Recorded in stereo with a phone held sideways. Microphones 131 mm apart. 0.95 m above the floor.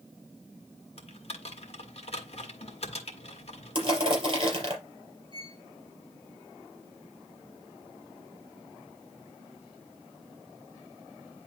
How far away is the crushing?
About 3.5 m.